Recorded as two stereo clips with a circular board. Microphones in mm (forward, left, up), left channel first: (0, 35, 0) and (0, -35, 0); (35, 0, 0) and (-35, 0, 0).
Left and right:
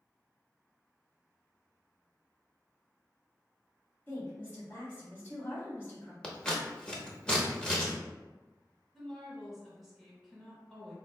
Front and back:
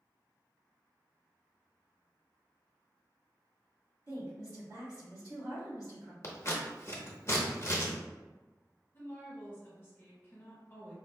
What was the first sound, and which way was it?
A woman speaking, 150° left.